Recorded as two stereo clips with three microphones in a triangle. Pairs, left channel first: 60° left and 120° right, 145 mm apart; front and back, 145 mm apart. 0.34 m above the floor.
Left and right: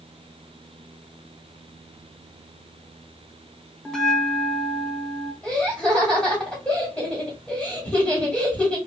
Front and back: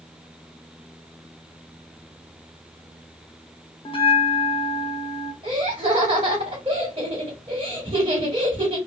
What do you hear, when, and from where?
3.9 s a bell: 25° right, 0.7 m
5.4 s laughter: 150° left, 1.6 m